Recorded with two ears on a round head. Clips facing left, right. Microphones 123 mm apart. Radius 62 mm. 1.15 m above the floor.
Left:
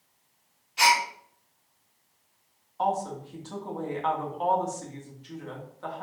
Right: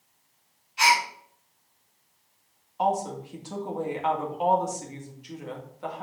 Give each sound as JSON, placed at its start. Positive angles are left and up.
{"t": 0.8, "sound": "a gasp", "side_deg": 60, "distance_m": 3.0}
{"t": 2.8, "sound": "a woman speaking", "side_deg": -15, "distance_m": 2.0}